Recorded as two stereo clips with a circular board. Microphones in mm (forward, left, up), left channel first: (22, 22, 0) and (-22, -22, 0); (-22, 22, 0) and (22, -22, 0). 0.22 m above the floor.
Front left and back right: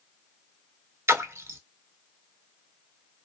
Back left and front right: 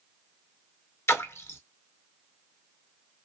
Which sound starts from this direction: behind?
A splash, at 1.1 s.